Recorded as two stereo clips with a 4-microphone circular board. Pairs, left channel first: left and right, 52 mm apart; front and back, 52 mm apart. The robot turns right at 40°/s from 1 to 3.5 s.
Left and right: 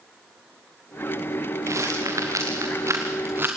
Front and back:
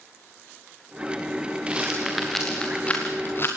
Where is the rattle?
115° right, 4 m; by 3.5 s 40° right, 4 m.